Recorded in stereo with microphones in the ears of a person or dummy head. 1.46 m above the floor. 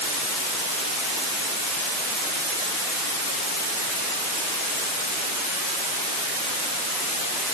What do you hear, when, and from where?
Only background noise.